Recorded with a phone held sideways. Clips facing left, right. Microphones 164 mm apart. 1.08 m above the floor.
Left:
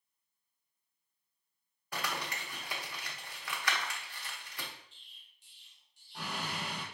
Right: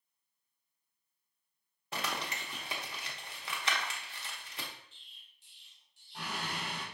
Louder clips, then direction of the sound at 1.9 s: Even; 25° right (ahead or behind).